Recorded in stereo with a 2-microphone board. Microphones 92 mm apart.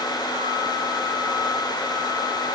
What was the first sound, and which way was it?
Only background noise.